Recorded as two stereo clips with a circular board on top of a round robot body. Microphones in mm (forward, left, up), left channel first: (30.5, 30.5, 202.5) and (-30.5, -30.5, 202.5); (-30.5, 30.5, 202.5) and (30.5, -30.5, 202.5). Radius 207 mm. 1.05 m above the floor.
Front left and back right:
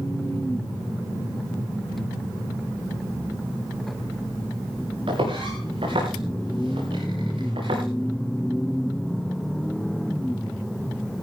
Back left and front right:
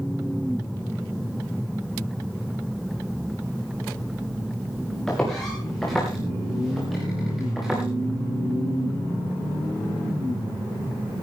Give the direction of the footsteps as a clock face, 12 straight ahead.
5 o'clock.